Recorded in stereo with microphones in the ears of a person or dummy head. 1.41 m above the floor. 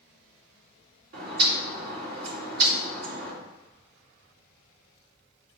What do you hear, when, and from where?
1.1 s a bird: 60° right (ahead or behind), 2.5 m